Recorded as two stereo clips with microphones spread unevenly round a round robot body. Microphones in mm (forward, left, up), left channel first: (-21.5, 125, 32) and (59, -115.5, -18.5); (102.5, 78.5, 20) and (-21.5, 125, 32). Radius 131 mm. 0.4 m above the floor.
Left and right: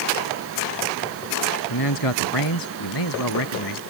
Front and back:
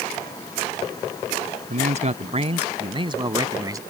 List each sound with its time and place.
1.7 s a man speaking: 130° left; by 3.8 s 95° left